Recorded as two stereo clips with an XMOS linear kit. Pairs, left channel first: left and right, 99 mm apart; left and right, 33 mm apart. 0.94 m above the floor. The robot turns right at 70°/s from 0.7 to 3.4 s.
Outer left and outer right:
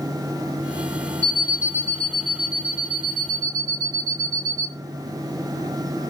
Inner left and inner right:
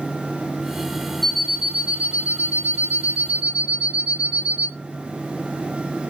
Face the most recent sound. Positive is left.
turn(degrees=-40)